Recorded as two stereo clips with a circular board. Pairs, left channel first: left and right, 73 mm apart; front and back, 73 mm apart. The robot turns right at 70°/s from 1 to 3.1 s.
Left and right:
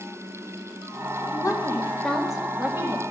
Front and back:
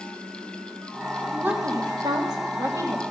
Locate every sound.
1.3 s a woman speaking: 110° left, 1.8 m; by 3.0 s 125° right, 1.8 m